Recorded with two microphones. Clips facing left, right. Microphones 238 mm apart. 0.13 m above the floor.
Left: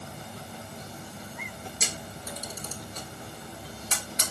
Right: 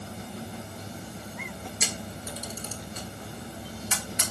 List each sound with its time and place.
1.8 s a camera shutter: 40° left (ahead or behind), 1.0 m